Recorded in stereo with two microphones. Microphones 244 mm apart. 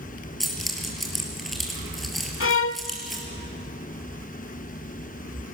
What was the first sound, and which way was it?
Keys jangling, centre (ahead or behind).